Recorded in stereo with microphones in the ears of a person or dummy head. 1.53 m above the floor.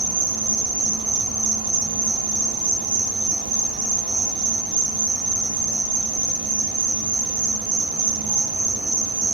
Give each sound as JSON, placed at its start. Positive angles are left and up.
{"t": 0.0, "sound": "an insect", "side_deg": -30, "distance_m": 1.0}